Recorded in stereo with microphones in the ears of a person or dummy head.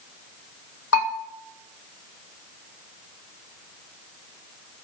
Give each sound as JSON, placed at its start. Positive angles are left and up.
{"t": 0.9, "sound": "a bell", "side_deg": 80, "distance_m": 2.5}